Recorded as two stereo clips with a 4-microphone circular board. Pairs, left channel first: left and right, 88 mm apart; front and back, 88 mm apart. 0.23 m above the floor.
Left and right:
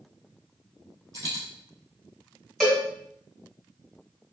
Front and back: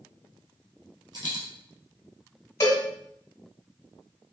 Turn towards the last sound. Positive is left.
turn(degrees=-5)